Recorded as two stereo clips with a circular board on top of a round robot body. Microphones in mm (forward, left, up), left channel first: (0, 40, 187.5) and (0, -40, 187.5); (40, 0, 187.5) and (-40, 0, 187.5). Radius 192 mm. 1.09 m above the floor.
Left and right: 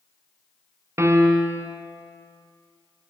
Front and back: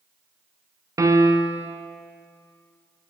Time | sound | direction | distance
1.0 | a piano | 140° right | 0.6 m